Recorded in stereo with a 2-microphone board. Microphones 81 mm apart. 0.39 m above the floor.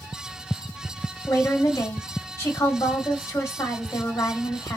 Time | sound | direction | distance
1.3 | a woman speaking | 40° left (ahead or behind) | 1.6 m